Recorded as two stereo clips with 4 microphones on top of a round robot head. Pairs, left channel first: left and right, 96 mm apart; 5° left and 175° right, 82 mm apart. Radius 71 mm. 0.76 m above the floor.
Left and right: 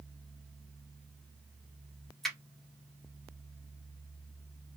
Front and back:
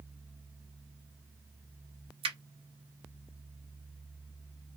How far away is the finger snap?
About 0.8 m.